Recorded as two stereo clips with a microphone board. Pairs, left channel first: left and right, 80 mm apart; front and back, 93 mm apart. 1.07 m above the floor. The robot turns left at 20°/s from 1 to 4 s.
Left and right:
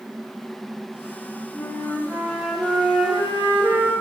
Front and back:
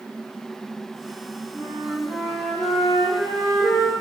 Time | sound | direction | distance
1.5 | a flute | 15° right | 1.3 m